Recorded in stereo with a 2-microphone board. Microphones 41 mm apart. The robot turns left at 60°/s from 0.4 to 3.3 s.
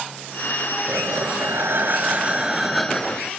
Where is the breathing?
65° right; by 3.3 s 150° left.